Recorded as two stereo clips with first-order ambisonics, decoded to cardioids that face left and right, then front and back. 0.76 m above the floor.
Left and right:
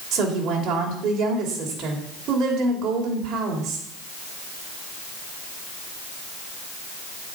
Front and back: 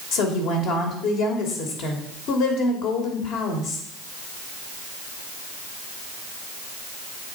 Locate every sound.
0.1 s a woman speaking: 35° right, 2.5 m